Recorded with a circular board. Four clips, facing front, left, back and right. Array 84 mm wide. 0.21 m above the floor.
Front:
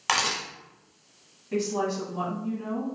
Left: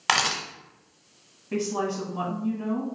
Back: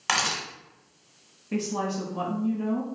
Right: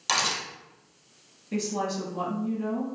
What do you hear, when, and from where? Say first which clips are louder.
0.1 s a camera shutter: left 4 dB, even; 90° left, 0.7 m
1.5 s a woman speaking: left 2 dB, front 1 dB; 105° left, 1.1 m